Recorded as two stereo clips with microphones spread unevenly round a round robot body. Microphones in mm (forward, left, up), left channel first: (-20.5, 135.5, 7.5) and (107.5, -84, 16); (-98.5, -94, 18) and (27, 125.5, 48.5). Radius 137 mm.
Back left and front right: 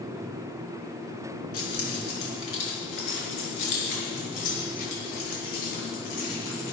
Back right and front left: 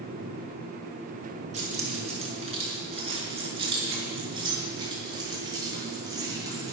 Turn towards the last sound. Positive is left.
turn(degrees=135)